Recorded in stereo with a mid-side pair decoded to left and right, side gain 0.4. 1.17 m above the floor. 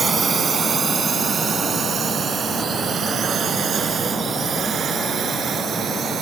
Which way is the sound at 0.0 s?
45° right.